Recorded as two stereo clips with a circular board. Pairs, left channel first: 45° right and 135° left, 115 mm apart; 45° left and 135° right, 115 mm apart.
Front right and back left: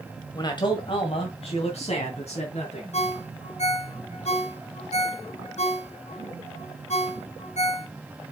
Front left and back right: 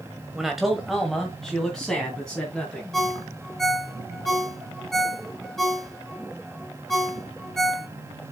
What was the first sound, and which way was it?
A man speaking, 50° right.